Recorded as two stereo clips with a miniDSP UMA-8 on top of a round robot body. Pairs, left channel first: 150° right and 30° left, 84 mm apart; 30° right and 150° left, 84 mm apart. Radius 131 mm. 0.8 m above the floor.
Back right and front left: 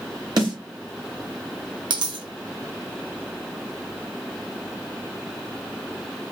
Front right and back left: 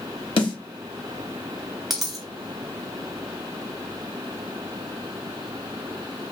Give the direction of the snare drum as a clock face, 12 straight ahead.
12 o'clock.